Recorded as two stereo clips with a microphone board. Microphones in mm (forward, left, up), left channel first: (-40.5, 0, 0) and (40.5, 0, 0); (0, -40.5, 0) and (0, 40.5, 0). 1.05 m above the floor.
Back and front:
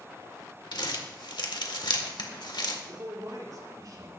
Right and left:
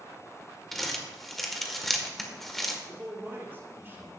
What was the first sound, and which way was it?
Crumpling, 175° right.